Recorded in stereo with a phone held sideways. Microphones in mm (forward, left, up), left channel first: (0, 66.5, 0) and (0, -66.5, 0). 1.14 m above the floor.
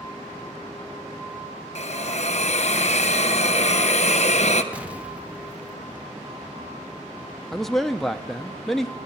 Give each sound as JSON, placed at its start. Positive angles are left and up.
{"t": 1.8, "sound": "a hiss", "side_deg": 60, "distance_m": 0.7}
{"t": 4.7, "sound": "an explosion", "side_deg": -10, "distance_m": 0.7}
{"t": 7.5, "sound": "a man speaking", "side_deg": 0, "distance_m": 0.6}